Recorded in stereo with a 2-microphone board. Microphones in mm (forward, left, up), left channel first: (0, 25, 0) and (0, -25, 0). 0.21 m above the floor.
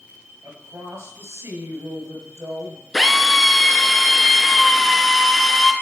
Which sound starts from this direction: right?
A woman speaking, at 0.4 s.